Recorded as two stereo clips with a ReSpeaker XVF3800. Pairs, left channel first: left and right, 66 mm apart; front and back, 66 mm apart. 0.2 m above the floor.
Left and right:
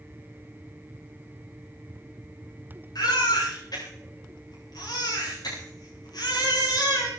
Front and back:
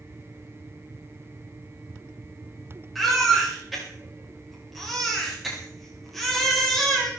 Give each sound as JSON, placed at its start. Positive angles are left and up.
{"t": 3.0, "sound": "a baby crying", "azimuth_deg": 90, "distance_m": 9.0}